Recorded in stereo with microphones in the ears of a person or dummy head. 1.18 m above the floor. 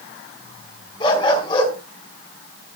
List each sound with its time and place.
1.0 s a dog barking: 30° left (ahead or behind), 4.5 m